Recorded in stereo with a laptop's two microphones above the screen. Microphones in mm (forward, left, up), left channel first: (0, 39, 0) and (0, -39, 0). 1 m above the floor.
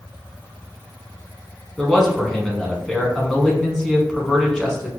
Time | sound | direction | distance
1.8 | a man speaking | 5° left (ahead or behind) | 1.0 m